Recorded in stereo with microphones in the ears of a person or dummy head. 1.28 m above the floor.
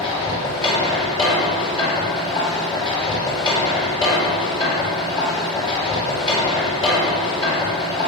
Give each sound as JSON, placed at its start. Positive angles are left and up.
{"t": 0.0, "sound": "a machine running", "side_deg": 25, "distance_m": 5.5}